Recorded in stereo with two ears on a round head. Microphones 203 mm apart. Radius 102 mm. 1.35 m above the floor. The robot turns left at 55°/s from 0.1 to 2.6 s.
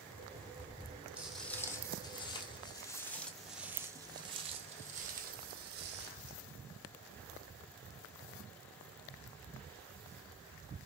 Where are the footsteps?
5° right (ahead or behind), 2 m; by 6.3 s 55° right (ahead or behind), 2.5 m.